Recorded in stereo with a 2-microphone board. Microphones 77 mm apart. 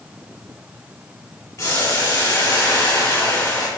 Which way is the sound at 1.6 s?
45° left (ahead or behind).